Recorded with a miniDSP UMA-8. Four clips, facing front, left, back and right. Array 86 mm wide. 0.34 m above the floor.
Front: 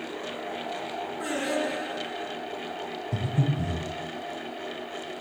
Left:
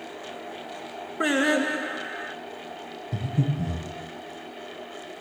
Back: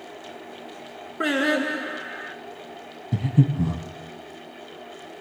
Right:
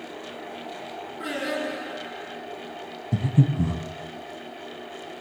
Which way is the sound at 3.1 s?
140° right.